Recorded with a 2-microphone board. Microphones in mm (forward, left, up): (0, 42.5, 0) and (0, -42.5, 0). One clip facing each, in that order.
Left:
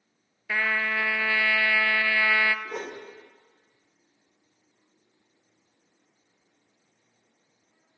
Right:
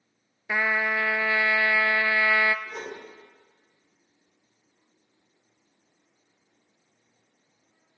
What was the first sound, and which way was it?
A trumpet, 20° right (ahead or behind).